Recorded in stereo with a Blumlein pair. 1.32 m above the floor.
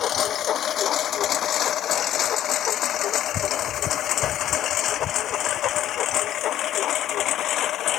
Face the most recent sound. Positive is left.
turn(degrees=30)